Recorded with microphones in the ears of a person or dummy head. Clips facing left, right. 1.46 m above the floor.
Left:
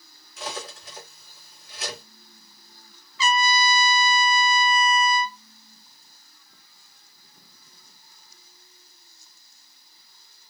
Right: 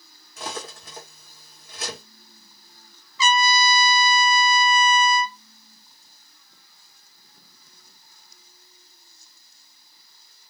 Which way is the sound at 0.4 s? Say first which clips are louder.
Right 1 dB; 45° right (ahead or behind).